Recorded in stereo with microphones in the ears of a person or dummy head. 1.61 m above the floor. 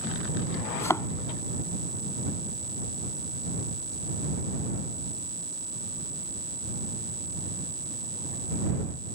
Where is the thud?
10° left (ahead or behind).